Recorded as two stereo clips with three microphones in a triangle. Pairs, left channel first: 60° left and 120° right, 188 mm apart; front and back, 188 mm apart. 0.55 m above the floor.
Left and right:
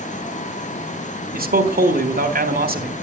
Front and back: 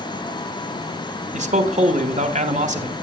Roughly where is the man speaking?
Behind right.